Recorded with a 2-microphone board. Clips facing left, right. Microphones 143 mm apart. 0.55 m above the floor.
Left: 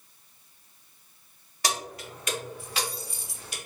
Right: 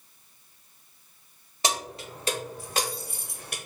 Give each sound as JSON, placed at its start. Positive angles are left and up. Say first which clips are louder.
{"t": 1.6, "sound": "keys jangling", "louder": "right 2 dB", "side_deg": -25, "distance_m": 1.2}